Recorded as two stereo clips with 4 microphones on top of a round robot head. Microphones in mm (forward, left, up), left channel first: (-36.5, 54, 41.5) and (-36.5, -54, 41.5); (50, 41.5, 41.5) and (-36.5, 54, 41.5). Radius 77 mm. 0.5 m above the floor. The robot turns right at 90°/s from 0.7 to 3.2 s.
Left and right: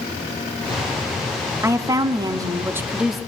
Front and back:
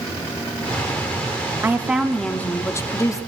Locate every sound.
1.6 s a woman speaking: 140° right, 0.8 m; by 3.3 s straight ahead, 0.8 m